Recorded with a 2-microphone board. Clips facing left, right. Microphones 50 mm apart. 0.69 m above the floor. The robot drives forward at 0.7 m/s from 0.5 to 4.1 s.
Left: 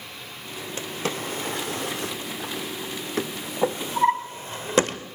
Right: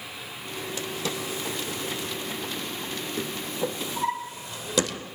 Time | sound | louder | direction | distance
0.8 | a drawer | left 4 dB | 40° left (ahead or behind) | 1.6 m